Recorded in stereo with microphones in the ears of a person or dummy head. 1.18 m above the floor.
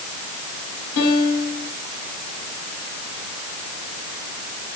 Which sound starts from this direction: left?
A piano, at 1.0 s.